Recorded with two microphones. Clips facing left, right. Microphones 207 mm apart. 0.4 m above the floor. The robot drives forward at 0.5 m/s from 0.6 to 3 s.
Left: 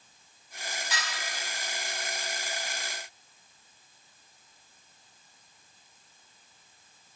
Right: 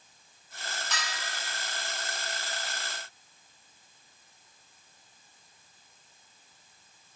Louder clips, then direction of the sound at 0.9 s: Even; 10° left (ahead or behind).